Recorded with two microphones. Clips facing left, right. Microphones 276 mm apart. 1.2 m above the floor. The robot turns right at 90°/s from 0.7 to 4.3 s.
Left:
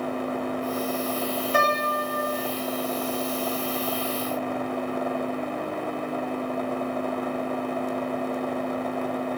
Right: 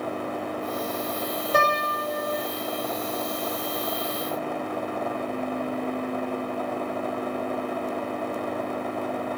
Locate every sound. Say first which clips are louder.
1.5 s a piano: right 3 dB; 135° right, 5.5 m; by 2.5 s 50° right, 5.5 m